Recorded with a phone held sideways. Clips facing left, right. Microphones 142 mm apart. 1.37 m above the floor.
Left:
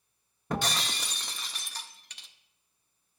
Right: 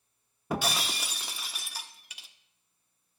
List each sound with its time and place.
0.5 s breaking glass: 5° right (ahead or behind), 0.8 m